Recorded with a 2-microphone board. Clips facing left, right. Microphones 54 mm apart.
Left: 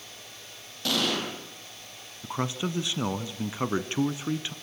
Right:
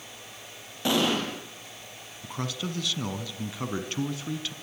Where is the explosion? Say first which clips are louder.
Right 3 dB; 20° right (ahead or behind), 5 m.